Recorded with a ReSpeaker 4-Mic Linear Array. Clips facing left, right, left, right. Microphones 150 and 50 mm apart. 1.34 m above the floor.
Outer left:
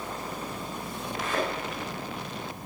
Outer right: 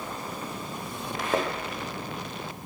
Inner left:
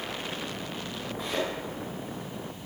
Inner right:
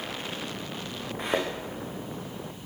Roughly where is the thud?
Right.